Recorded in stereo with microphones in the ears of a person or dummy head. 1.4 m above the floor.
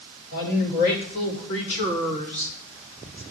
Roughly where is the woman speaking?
Left.